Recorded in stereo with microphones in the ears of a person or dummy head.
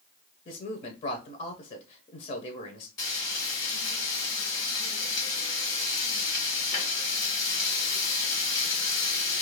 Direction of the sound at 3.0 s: 25° left (ahead or behind).